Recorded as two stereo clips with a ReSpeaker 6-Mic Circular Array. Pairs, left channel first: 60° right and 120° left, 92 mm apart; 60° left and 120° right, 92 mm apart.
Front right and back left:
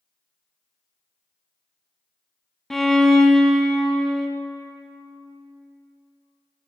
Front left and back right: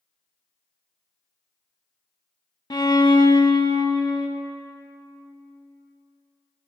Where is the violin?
25° left, 0.7 m.